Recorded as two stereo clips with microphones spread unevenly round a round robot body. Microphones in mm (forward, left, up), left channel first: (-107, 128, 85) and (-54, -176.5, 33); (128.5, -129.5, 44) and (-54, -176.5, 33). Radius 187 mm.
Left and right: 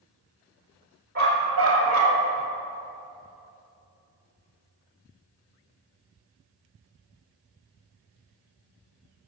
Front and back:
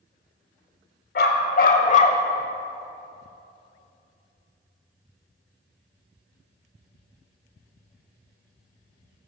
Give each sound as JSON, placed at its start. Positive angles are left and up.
{"t": 1.1, "sound": "a dog barking", "azimuth_deg": -15, "distance_m": 1.3}